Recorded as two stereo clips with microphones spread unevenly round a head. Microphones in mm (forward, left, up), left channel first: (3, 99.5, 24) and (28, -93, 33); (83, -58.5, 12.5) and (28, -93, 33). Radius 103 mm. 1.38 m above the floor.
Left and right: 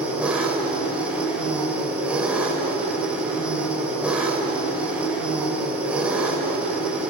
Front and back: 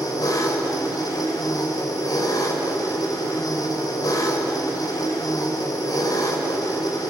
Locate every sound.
0.0 s an engine running: straight ahead, 4 m